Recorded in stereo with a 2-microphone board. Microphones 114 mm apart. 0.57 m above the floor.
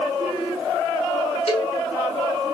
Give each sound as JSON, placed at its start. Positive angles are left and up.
{"t": 1.5, "sound": "a cowbell", "side_deg": 60, "distance_m": 2.5}